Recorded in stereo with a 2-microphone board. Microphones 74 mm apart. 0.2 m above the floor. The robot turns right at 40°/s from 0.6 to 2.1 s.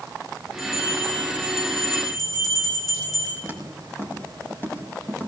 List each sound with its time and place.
0.6 s a bell: 5° right, 8.5 m; by 3.3 s 55° left, 8.5 m
3.4 s footsteps: 35° left (ahead or behind), 6 m; by 5.3 s 25° left (ahead or behind), 7 m